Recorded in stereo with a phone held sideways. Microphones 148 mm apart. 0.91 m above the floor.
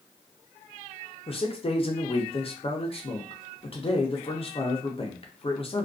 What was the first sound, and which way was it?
A man speaking, 40° left (ahead or behind).